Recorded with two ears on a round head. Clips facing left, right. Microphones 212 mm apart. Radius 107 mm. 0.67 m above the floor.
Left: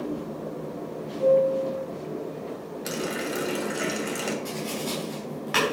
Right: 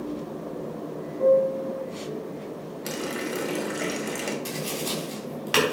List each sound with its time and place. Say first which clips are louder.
1.2 s a piano: even; 65° right (ahead or behind), 5.5 m
2.9 s a running tap: left 1 dB; 5° left (ahead or behind), 1.9 m
4.5 s tapping: even; 50° right (ahead or behind), 5 m